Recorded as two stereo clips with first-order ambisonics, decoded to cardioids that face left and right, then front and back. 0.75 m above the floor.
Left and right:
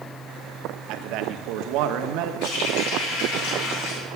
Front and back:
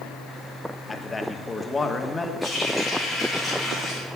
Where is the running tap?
90° left, 8 m.